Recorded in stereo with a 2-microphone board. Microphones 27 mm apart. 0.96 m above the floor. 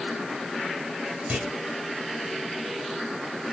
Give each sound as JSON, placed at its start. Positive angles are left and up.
{"t": 1.3, "sound": "a clunk", "side_deg": -65, "distance_m": 2.0}